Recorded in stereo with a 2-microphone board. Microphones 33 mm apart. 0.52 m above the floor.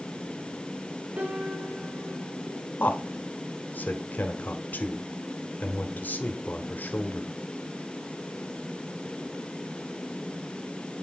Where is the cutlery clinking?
No cutlery clinking in this recording.